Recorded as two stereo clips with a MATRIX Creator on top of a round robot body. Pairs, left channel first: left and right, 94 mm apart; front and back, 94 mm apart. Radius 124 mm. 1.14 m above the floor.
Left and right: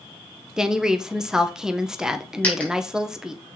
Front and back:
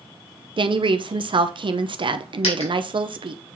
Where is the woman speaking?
170° right, 1.0 m.